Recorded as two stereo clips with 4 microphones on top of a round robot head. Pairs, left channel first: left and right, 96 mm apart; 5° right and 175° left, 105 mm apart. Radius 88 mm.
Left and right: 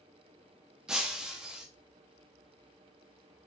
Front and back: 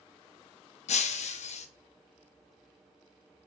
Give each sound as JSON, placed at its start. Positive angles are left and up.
{"t": 0.9, "sound": "breaking glass", "azimuth_deg": -5, "distance_m": 0.5}